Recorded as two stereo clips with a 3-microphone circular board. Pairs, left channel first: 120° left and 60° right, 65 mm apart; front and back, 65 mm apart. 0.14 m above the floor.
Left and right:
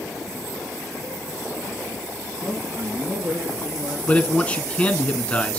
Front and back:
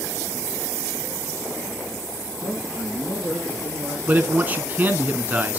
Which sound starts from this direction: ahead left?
A man speaking, at 2.4 s.